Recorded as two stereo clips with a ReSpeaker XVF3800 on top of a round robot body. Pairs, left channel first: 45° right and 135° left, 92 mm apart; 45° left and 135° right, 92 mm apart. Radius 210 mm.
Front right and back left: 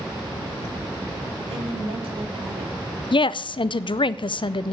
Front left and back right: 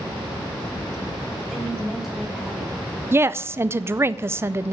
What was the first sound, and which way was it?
A woman speaking, 135° left.